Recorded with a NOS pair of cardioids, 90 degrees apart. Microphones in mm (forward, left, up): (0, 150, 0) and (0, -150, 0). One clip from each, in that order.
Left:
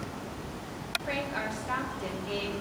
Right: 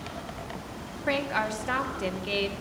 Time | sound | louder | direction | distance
1.1 | a woman speaking | right 9 dB | 55° right | 1.8 m